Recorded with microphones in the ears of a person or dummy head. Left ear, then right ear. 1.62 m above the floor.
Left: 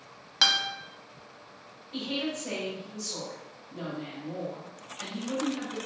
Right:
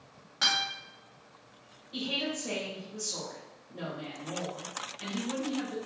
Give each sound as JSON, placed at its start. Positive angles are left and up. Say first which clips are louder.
{"t": 0.4, "sound": "a guitar", "louder": "left 4 dB", "side_deg": 45, "distance_m": 0.7}
{"t": 1.9, "sound": "a woman speaking", "louder": "even", "side_deg": 0, "distance_m": 1.3}